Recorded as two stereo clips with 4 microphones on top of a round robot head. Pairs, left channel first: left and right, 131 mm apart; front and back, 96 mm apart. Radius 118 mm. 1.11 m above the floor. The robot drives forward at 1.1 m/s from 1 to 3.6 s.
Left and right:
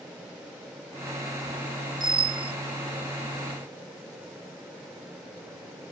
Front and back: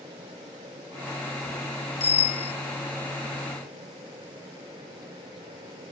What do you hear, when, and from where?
2.0 s a bicycle bell: 30° right; by 2.5 s 35° right